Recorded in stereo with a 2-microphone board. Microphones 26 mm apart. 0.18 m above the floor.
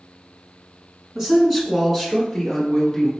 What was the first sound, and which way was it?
A man speaking, 20° right (ahead or behind).